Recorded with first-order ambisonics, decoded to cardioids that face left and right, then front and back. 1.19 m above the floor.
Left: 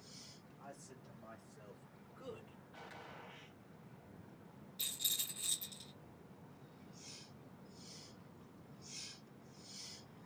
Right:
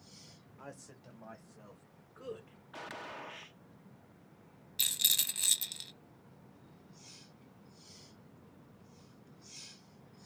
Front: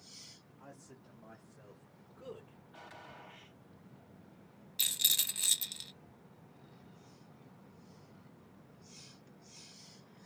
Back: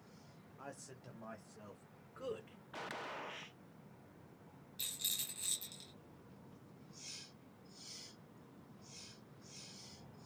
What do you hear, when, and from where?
0.6 s a man speaking: 125° right, 1.0 m; by 2.6 s 150° right, 3.5 m
2.7 s a gunshot: 135° right, 0.6 m
4.8 s a rattle: 50° right, 0.9 m